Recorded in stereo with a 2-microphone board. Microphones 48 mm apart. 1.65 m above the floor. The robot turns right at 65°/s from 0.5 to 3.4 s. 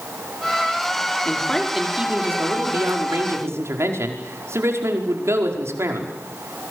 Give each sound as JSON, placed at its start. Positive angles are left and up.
{"t": 1.2, "sound": "a man speaking", "azimuth_deg": 150, "distance_m": 5.0}